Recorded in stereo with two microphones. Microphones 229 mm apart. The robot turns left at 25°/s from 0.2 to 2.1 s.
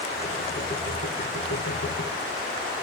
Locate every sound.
Only background noise.